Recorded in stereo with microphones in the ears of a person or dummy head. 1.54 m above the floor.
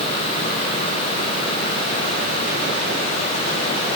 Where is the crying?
No crying in this recording.